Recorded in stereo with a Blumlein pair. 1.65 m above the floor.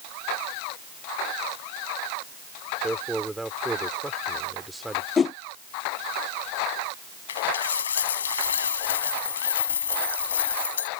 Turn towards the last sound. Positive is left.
turn(degrees=65)